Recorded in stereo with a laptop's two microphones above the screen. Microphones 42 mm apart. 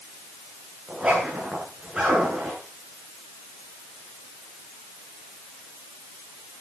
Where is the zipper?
10° right (ahead or behind), 9.5 m.